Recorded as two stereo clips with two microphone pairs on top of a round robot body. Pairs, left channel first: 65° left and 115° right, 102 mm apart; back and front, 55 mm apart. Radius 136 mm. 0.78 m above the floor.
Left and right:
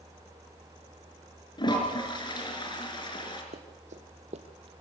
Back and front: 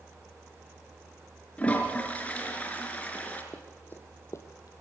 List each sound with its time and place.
1.6 s a toilet flushing: 110° left, 4 m
3.5 s running footsteps: 110° right, 2 m; by 4.7 s 155° right, 1.0 m